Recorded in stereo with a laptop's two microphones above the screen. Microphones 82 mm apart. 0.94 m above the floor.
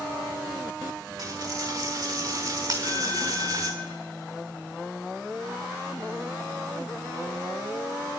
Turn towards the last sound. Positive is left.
turn(degrees=-50)  # may be behind; listen again after turning